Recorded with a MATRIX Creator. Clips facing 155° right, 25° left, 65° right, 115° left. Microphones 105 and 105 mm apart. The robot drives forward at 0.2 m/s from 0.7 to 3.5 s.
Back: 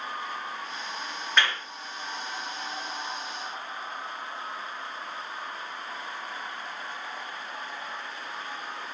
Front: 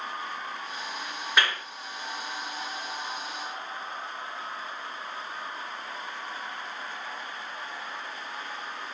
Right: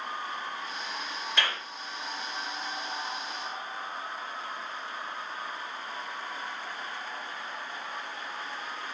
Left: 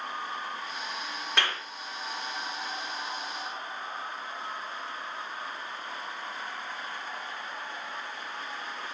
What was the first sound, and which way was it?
A clap, 105° left.